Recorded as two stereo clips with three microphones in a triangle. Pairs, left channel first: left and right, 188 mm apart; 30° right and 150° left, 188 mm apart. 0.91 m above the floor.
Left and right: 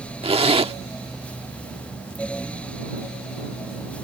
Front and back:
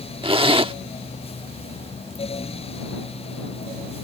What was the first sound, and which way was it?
A zipper, 150° right.